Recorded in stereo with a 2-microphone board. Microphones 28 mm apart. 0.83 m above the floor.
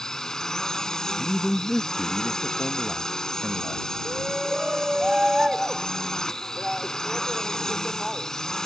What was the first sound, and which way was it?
A drone, 15° left (ahead or behind).